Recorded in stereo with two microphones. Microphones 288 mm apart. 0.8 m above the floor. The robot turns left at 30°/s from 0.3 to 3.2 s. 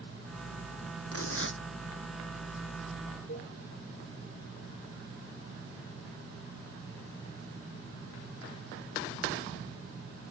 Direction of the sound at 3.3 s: 45° left (ahead or behind).